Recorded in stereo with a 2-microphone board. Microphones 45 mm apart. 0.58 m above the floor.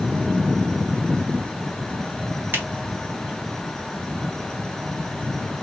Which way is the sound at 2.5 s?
50° right (ahead or behind).